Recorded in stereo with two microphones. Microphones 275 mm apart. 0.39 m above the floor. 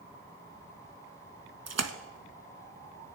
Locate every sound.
1.7 s a splash: 65° right (ahead or behind), 0.8 m